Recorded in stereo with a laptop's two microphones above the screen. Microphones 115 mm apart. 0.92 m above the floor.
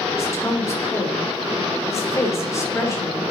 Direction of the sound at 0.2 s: 25° left (ahead or behind).